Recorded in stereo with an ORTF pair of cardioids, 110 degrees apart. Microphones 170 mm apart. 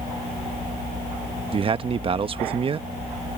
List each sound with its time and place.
1.5 s a man speaking: 30° right